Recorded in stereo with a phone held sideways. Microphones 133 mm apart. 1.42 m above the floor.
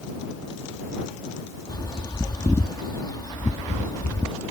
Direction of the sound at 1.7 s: 30° left (ahead or behind).